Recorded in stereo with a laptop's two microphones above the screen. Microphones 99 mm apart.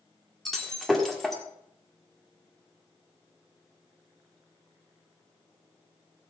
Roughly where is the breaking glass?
Centre.